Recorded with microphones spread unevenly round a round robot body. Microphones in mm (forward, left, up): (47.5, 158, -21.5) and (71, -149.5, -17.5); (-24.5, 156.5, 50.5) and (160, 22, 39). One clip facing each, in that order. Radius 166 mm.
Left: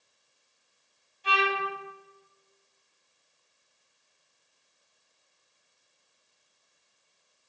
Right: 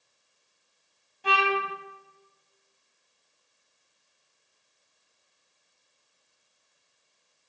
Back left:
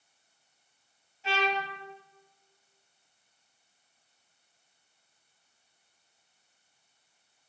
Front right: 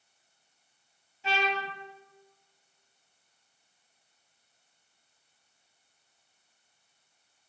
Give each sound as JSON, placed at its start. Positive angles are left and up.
{"t": 1.2, "sound": "a trumpet", "azimuth_deg": -50, "distance_m": 3.5}